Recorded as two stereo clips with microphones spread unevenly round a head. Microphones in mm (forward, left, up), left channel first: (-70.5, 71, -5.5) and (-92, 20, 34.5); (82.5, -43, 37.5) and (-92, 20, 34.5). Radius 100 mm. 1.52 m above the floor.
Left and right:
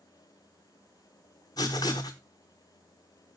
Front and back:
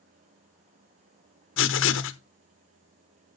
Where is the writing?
10° left, 0.6 m.